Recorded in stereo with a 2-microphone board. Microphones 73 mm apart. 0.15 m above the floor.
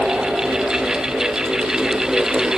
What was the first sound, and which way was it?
Only background noise.